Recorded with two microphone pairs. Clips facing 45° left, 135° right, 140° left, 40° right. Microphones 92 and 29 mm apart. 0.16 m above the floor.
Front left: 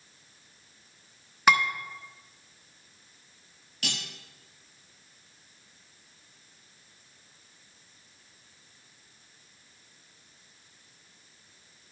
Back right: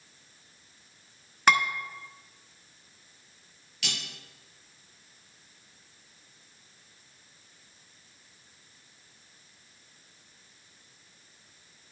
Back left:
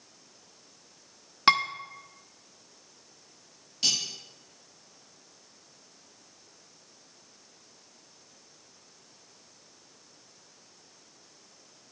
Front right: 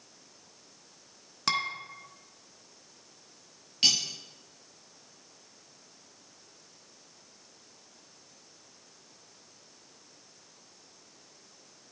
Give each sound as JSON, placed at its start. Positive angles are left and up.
{"t": 1.5, "sound": "dishes clattering", "azimuth_deg": 125, "distance_m": 0.9}
{"t": 3.8, "sound": "cutlery clinking", "azimuth_deg": 5, "distance_m": 1.7}